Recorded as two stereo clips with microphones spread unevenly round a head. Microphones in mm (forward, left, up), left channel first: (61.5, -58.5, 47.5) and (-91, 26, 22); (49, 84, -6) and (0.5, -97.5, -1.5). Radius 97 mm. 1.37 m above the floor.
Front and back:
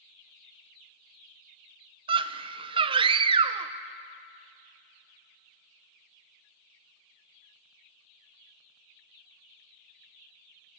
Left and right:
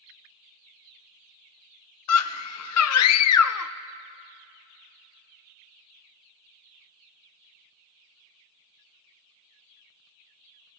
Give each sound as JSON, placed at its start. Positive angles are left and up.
{"t": 2.1, "sound": "a scream", "azimuth_deg": 85, "distance_m": 0.7}